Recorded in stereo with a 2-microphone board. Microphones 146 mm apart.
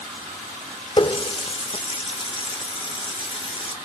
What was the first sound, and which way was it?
A running tap, 40° left (ahead or behind).